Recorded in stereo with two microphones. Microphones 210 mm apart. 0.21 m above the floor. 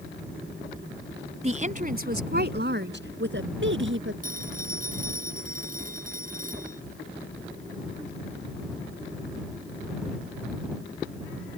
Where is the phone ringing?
40° right (ahead or behind).